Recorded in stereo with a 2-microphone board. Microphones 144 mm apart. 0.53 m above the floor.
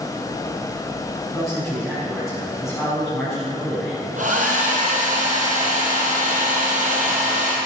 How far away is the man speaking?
About 4.5 m.